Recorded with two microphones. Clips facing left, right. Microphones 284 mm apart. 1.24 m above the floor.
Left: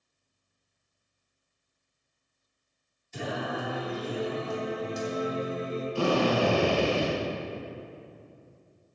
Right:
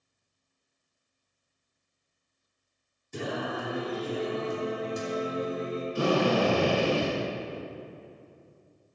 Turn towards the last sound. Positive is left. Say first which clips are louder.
# even
turn(degrees=-20)  # may be behind; listen again after turning